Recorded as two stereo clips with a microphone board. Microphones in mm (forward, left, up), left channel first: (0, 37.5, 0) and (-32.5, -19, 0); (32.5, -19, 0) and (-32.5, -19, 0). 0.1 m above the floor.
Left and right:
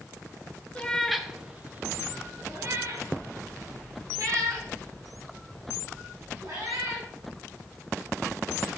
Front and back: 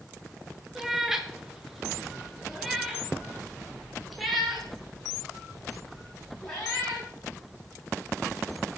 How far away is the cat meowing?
About 0.8 m.